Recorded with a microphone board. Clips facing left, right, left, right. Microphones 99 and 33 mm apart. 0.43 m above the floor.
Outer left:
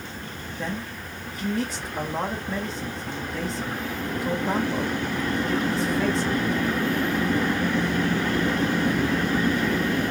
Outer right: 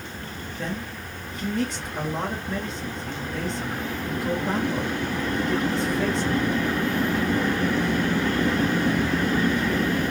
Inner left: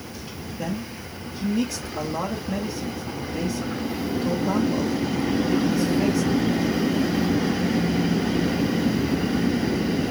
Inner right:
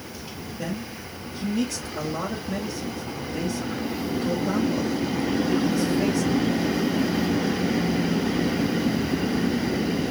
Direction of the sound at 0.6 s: Centre (ahead or behind).